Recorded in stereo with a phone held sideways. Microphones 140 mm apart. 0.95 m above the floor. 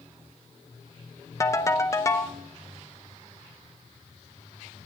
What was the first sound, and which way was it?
A ringtone, 20° left (ahead or behind).